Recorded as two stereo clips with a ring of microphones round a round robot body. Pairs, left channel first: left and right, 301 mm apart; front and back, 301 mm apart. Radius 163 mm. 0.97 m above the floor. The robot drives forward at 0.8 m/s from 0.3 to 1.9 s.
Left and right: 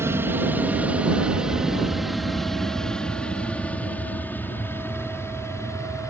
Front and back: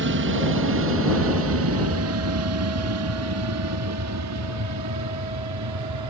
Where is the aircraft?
170° right; by 6.1 s 170° left.